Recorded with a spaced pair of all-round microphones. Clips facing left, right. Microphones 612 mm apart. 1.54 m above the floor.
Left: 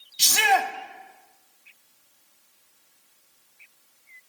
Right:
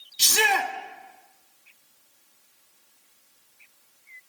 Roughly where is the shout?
Centre.